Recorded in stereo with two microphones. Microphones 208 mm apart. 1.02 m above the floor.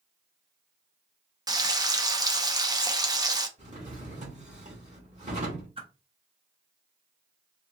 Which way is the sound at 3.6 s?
35° right (ahead or behind).